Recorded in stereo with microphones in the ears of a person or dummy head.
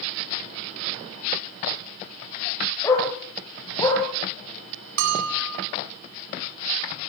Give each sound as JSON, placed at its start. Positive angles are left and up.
{"t": 2.8, "sound": "a dog barking", "side_deg": 15, "distance_m": 8.0}
{"t": 5.0, "sound": "a bell", "side_deg": -65, "distance_m": 4.0}